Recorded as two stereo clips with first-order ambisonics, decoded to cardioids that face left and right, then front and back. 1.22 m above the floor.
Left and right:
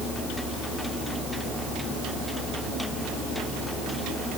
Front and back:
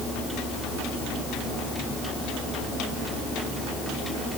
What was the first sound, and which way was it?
Only background noise.